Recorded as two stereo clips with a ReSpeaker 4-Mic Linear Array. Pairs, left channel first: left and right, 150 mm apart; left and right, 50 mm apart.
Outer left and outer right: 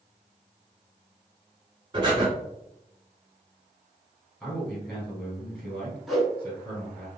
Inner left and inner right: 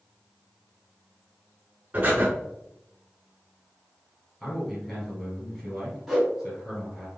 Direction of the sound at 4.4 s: 5° left (ahead or behind).